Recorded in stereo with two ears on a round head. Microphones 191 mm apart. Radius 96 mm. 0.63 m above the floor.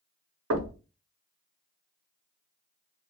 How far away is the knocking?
About 0.8 m.